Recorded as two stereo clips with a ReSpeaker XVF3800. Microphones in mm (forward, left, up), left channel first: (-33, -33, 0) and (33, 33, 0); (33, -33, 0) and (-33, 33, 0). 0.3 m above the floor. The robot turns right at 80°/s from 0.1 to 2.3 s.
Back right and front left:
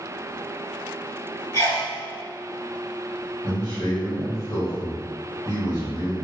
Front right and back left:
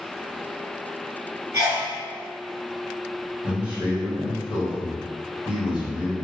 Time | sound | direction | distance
1.5 | a sneeze | straight behind | 2.0 m
3.4 | a man speaking | 150° right | 1.8 m